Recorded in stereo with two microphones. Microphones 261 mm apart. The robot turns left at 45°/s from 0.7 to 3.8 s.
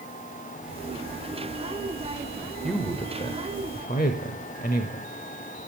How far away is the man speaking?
About 1.0 m.